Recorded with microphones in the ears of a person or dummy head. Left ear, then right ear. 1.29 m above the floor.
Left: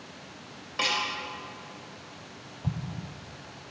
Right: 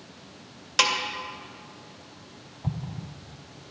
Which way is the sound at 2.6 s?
5° right (ahead or behind).